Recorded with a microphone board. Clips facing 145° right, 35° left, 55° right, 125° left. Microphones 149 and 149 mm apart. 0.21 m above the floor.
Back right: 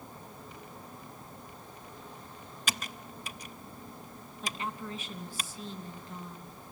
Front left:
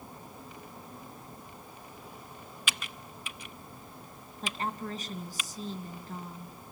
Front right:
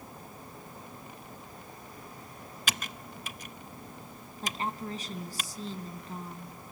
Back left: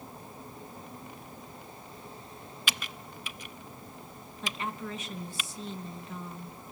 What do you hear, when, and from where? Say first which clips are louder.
2.7 s typing on a keyboard: back right 3 dB, front right 2 dB; 100° right, 0.6 m
4.4 s a woman speaking: front left 3 dB, front right 1 dB; 10° right, 3 m